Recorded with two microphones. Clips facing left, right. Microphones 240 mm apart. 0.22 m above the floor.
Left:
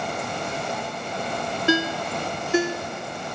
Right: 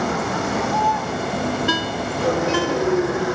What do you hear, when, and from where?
0.0 s a vehicle: 80° right
1.7 s a ringtone: 20° left (ahead or behind)